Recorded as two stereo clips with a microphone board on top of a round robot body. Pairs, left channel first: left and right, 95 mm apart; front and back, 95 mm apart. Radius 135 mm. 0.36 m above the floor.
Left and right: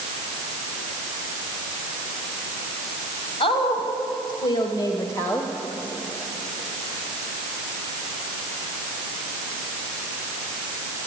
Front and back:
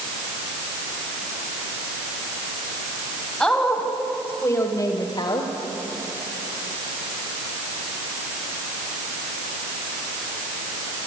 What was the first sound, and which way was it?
A woman speaking, 85° left.